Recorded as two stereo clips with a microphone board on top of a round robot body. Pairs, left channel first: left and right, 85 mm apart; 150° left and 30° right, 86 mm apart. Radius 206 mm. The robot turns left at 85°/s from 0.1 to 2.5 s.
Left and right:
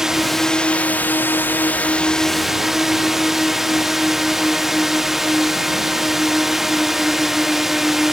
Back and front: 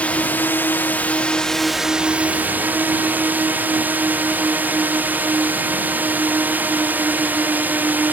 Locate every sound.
0.0 s a drone: 165° right; by 8.1 s 10° right